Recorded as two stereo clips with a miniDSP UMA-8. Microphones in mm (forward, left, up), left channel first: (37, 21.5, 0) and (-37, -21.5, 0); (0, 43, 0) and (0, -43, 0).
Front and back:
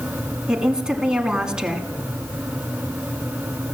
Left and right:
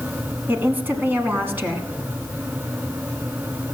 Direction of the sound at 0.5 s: 90° right.